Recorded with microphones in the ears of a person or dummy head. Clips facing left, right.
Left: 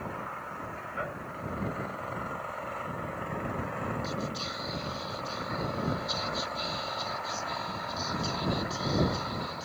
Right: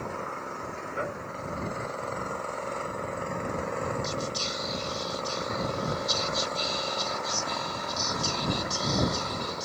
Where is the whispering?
45° right (ahead or behind).